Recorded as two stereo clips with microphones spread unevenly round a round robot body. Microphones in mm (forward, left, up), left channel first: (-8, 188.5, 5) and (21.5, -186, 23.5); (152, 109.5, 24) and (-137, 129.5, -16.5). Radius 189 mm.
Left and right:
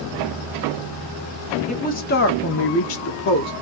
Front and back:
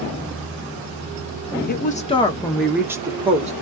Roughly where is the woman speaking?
Ahead left.